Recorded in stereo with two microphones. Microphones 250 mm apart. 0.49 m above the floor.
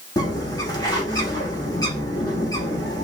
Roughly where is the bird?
Centre.